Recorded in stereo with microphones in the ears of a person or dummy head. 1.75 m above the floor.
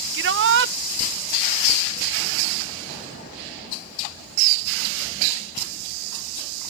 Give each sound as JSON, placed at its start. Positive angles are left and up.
{"t": 0.1, "sound": "a shout", "side_deg": -70}